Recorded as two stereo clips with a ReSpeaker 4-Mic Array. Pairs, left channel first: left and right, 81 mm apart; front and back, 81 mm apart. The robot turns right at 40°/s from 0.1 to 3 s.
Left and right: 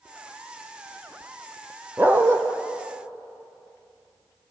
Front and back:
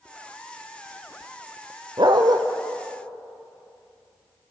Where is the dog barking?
160° right, 2.5 m; by 2.4 s 140° right, 2.5 m.